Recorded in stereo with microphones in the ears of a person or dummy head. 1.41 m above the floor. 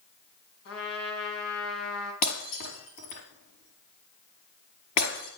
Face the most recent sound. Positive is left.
turn(degrees=50)  # may be behind; listen again after turning